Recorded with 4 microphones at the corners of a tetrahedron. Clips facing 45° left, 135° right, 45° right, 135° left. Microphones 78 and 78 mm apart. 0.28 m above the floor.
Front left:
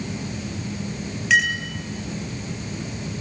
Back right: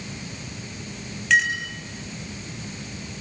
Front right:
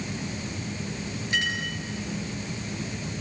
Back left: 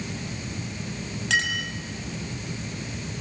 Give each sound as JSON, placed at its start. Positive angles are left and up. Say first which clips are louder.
{"t": 1.3, "sound": "a clink", "louder": "even, back left 3 dB", "azimuth_deg": 130, "distance_m": 5.0}